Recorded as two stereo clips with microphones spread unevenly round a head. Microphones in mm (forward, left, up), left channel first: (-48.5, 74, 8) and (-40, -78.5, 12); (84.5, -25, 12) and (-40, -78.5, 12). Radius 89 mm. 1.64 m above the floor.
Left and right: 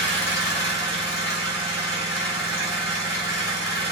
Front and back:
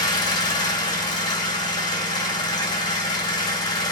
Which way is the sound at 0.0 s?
20° right.